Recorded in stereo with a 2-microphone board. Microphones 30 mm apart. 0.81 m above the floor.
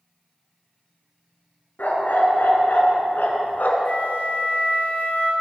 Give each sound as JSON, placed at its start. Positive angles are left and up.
{"t": 1.8, "sound": "a dog barking", "side_deg": 75, "distance_m": 3.5}
{"t": 3.9, "sound": "a flute", "side_deg": 75, "distance_m": 3.5}